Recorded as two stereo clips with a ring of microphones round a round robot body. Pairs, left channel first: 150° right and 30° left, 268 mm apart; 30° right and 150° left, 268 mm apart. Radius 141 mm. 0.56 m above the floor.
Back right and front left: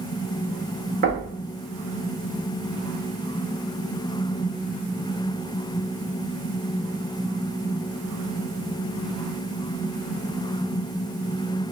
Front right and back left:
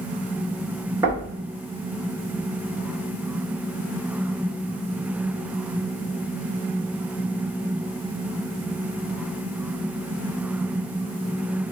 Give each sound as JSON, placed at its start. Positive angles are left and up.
{"t": 1.0, "sound": "knocking", "azimuth_deg": 75, "distance_m": 1.3}